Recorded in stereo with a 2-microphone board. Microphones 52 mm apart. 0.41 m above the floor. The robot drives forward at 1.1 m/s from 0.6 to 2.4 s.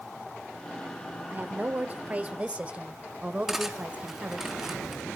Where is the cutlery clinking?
5° right (ahead or behind), 2.5 m.